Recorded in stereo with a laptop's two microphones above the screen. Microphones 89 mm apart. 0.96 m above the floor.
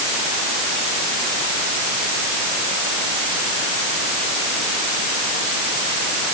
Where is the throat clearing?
No throat clearing in this recording.